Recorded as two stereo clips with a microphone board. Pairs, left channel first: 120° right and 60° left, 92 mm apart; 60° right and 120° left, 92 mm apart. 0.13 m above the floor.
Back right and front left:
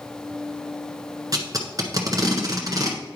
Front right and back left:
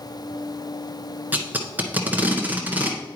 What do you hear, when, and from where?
1.3 s tape being pulled: 55° left, 1.3 m